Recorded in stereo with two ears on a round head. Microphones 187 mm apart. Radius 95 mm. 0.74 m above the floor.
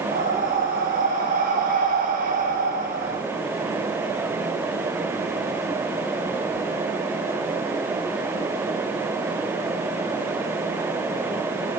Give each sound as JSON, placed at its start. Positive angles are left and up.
{"t": 0.1, "sound": "breathing", "side_deg": -45, "distance_m": 0.6}